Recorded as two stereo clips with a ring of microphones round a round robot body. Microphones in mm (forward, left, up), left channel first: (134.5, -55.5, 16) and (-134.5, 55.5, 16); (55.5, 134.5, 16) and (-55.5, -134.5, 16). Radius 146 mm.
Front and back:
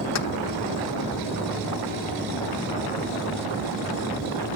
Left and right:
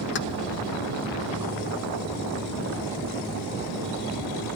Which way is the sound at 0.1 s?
15° left.